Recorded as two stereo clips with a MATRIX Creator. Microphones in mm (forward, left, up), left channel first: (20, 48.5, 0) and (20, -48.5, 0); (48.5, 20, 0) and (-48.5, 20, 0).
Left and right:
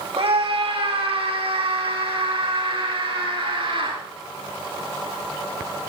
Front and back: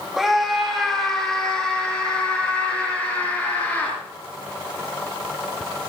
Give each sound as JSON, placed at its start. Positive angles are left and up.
{"t": 0.2, "sound": "a scream", "azimuth_deg": -90, "distance_m": 3.5}